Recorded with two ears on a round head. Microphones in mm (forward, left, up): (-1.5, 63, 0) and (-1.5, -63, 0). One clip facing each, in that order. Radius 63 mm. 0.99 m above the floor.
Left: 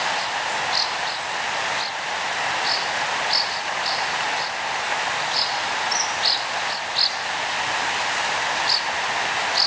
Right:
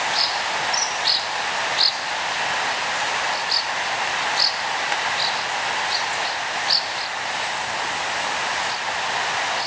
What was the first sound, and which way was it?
Only background noise.